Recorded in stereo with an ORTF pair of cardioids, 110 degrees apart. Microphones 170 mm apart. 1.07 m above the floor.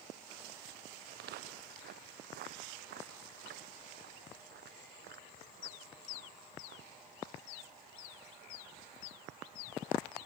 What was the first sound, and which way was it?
Footsteps, 70° right.